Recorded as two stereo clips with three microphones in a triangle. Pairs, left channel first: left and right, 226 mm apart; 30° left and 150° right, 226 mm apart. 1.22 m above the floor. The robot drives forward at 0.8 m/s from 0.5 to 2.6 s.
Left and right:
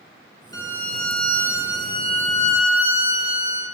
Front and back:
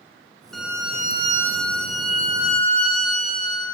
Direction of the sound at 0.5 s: 60° right.